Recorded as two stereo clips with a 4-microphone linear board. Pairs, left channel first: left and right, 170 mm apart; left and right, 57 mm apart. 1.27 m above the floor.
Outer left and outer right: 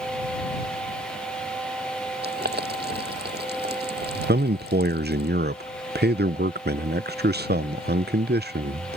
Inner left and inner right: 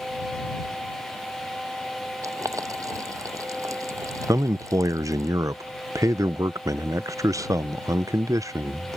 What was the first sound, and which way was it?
Boiling, 85° right.